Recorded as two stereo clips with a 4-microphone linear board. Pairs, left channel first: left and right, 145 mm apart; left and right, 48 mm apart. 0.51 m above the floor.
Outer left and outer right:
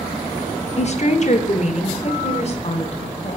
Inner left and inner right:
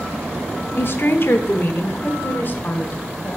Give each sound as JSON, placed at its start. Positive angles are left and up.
{"t": 0.8, "sound": "a woman speaking", "side_deg": 50, "distance_m": 0.9}